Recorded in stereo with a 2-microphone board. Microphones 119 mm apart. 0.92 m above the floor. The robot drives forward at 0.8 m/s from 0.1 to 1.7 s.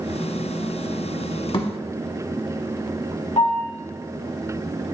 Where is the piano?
65° left (ahead or behind), 2 m.